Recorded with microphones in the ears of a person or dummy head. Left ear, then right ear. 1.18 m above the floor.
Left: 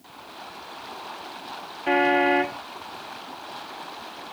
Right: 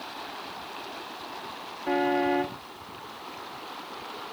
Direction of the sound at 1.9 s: 75° left (ahead or behind).